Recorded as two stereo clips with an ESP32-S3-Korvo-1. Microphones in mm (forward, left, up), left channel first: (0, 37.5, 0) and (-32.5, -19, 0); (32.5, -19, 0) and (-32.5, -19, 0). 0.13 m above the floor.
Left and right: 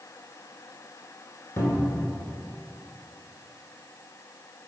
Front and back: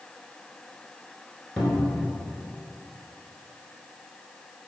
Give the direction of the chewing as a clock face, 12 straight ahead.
I don't hear chewing.